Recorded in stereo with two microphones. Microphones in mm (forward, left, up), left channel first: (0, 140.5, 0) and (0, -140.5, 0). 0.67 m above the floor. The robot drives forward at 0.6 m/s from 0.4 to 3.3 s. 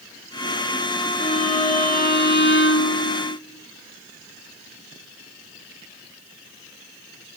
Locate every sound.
1.2 s a violin: 25° left (ahead or behind), 1.6 m; by 3.4 s 55° left (ahead or behind), 0.8 m